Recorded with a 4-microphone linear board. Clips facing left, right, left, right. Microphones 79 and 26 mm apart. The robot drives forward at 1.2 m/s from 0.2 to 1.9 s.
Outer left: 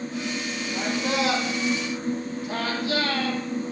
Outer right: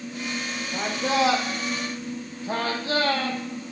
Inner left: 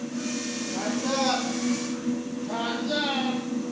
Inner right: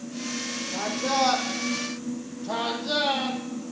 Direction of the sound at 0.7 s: 30° right (ahead or behind).